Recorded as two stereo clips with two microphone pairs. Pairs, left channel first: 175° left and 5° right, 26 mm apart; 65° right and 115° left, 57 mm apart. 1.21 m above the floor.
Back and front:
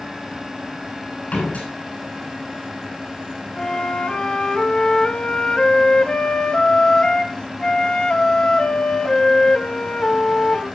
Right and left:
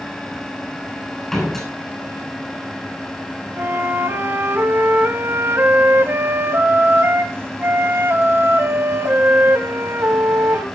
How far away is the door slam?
About 7 m.